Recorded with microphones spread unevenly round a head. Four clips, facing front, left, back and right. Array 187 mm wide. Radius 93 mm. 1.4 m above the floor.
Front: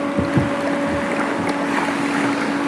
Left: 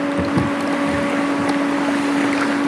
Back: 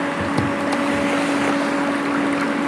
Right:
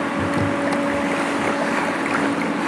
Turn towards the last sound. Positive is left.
turn(degrees=25)